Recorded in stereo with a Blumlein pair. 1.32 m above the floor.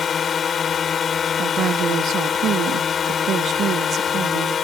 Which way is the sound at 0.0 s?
20° left.